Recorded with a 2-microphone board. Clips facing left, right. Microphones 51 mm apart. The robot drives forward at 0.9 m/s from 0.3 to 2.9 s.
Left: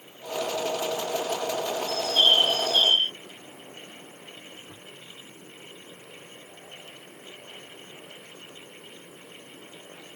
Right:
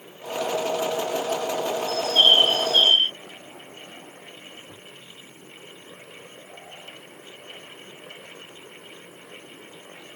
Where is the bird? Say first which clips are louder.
Right 4 dB; 40° right (ahead or behind); by 3.1 s 35° right (ahead or behind).